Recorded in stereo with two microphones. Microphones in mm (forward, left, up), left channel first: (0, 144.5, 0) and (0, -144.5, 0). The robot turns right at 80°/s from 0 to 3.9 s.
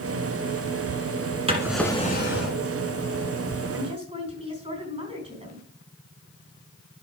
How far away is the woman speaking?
About 3.5 m.